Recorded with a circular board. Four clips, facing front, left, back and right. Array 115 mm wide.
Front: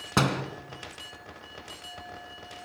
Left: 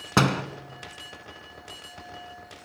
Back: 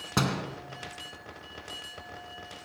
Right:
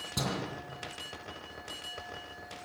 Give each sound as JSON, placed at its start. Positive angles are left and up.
{"t": 0.2, "sound": "a door slam", "azimuth_deg": 70, "distance_m": 2.0}